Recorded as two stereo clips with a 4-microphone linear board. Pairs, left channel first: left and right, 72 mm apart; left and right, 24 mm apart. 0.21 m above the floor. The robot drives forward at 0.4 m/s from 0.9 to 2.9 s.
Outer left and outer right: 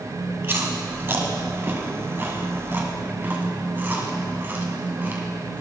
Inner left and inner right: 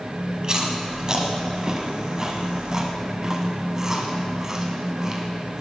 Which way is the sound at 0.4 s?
35° right (ahead or behind).